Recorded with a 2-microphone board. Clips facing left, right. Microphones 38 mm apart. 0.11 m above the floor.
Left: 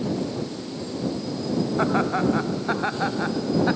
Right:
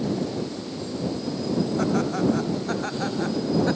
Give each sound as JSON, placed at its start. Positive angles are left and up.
{"t": 1.8, "sound": "laughter", "side_deg": 35}